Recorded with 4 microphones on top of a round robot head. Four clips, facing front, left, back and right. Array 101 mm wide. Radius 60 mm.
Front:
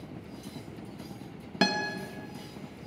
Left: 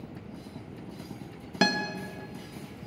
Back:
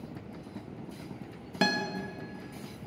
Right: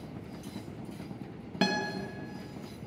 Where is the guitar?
60° left, 0.6 m.